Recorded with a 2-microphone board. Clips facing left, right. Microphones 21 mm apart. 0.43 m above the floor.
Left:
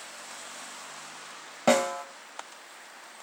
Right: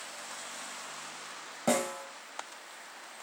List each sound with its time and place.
1.7 s a snare drum: 45° left (ahead or behind), 1.2 m